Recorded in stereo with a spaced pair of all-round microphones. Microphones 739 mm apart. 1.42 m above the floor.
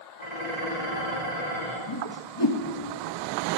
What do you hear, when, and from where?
0.2 s dishes clattering: 60° left (ahead or behind), 2.5 m
1.9 s a whoosh: 35° left (ahead or behind), 0.9 m